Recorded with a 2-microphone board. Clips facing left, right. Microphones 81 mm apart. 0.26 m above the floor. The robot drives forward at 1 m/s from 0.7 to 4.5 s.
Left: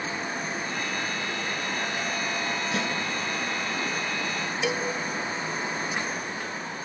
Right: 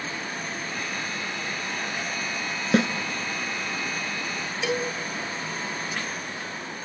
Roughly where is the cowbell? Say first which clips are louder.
Right 2 dB; centre.